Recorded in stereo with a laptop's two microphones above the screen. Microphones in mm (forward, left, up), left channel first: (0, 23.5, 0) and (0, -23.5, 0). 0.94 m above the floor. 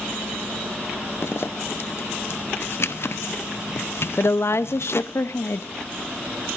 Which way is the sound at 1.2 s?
60° left (ahead or behind).